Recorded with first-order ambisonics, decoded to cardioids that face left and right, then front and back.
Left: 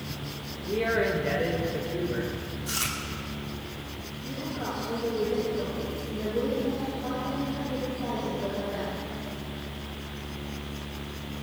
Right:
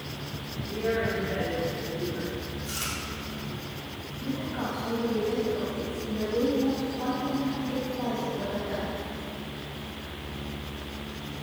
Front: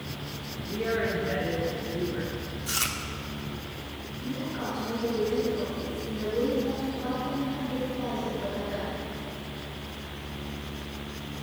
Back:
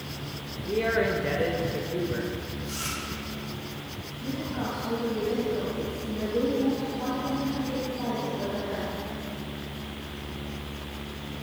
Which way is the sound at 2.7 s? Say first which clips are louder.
Left 4 dB, front 5 dB; 20° left.